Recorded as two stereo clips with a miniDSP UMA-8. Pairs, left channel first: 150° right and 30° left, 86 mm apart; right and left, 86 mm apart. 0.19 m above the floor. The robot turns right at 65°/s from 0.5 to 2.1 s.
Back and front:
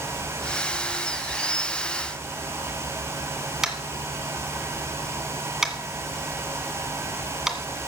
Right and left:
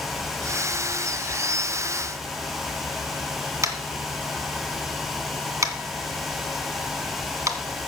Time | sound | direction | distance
3.6 | tapping | 110° left | 1.7 m